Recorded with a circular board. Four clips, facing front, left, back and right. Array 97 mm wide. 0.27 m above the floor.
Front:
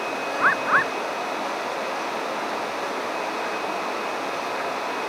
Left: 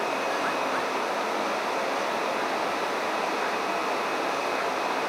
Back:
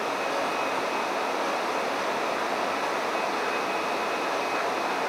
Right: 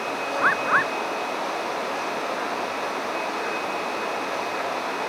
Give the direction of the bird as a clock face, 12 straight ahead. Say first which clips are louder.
Right 5 dB, front 6 dB; 1 o'clock.